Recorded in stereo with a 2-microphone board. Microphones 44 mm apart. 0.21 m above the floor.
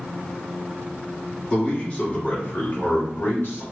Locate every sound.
1.5 s a man speaking: 25° left (ahead or behind), 1.4 m; by 3.6 s 55° left (ahead or behind), 1.7 m